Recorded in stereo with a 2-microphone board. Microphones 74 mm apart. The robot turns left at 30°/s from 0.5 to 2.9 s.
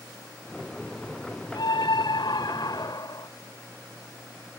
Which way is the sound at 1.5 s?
100° left.